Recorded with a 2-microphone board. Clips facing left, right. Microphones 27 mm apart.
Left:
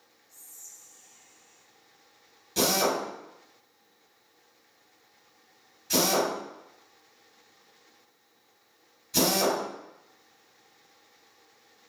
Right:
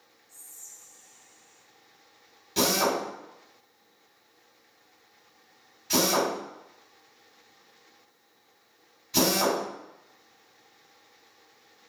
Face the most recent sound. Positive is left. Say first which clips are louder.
# right 1 dB
turn(degrees=-15)  # may be behind; listen again after turning